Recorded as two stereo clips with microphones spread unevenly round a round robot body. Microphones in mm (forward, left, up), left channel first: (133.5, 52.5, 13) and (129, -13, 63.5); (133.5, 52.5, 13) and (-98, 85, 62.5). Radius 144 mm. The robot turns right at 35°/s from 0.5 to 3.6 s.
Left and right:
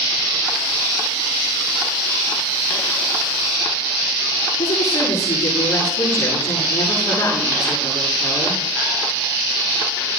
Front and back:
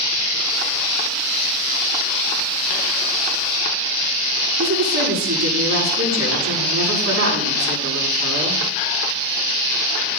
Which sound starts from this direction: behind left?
A woman speaking, at 4.6 s.